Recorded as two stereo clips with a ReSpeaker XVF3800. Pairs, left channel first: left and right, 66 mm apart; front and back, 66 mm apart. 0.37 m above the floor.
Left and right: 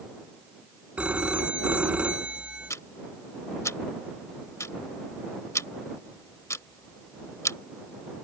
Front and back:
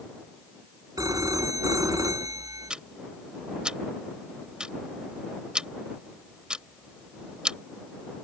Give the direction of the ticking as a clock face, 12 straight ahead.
8 o'clock.